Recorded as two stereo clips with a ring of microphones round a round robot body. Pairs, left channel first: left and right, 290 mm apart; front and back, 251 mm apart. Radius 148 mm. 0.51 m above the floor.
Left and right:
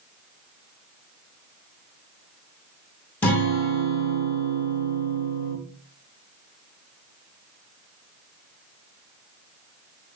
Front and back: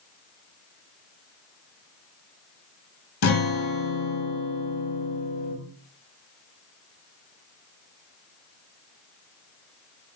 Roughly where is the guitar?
Ahead.